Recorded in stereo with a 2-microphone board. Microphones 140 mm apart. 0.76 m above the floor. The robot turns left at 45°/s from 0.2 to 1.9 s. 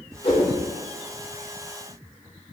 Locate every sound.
0.2 s a whoosh: 50° left (ahead or behind), 2.5 m; by 0.5 s 60° left (ahead or behind), 2.5 m